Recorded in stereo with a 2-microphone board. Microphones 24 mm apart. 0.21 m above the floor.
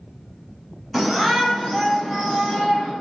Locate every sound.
0.9 s a shout: 5° right (ahead or behind), 1.4 m; by 2.9 s 10° left (ahead or behind), 3 m